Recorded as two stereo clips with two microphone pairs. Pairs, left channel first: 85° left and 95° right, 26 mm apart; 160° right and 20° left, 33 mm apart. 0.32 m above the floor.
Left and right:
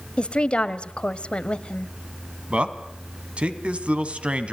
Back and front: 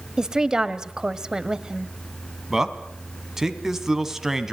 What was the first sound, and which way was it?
A woman speaking, 85° left.